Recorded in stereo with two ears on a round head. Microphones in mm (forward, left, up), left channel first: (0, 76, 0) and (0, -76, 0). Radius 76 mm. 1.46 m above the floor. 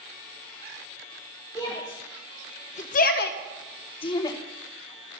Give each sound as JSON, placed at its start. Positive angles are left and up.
{"t": 1.6, "sound": "a shout", "side_deg": 20, "distance_m": 2.0}